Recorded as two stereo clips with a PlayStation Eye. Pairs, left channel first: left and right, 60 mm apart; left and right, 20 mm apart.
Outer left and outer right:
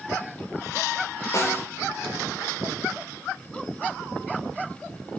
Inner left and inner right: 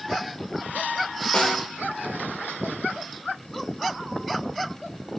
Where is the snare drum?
60° left (ahead or behind), 9 m.